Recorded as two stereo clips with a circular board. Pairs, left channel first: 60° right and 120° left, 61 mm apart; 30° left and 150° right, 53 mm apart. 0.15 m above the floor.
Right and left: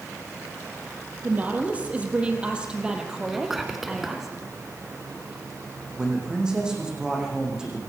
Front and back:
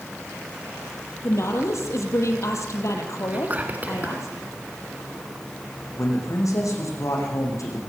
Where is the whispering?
160° right, 1.9 m.